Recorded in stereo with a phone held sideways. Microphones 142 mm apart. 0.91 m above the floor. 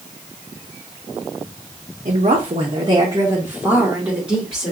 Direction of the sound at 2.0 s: 45° right (ahead or behind).